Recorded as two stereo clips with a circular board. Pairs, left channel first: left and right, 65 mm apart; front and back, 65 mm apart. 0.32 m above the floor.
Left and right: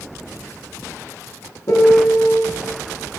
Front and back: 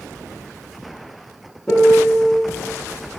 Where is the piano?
80° left, 4 m.